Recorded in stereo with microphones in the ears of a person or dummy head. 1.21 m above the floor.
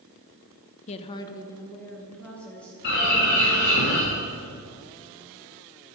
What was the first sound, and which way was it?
A woman speaking, 35° left (ahead or behind).